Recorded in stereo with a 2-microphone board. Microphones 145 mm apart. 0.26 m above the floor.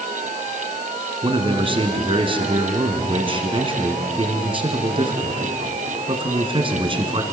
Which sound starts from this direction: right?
A man speaking, at 1.2 s.